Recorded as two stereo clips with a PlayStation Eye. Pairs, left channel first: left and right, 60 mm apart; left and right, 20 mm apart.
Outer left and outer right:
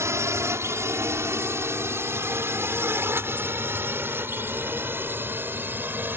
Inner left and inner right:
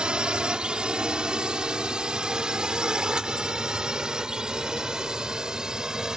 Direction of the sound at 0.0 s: 50° right (ahead or behind).